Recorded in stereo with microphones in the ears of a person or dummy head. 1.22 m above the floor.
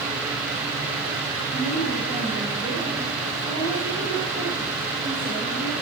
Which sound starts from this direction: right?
A woman speaking, at 1.5 s.